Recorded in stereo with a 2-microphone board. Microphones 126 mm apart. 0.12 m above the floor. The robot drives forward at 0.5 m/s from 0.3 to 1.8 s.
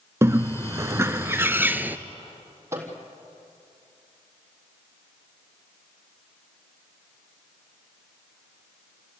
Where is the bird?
20° right (ahead or behind), 0.5 m; by 2.0 s 15° right (ahead or behind), 0.8 m.